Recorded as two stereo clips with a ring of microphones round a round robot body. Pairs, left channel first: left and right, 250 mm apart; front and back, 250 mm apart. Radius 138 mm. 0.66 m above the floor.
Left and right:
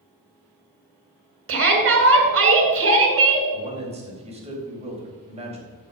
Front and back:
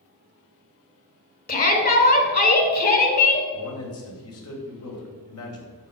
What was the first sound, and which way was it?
A shout, 55° right.